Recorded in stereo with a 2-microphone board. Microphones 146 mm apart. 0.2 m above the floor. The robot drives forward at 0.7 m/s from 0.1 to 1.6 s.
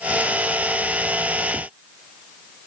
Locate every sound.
Only background noise.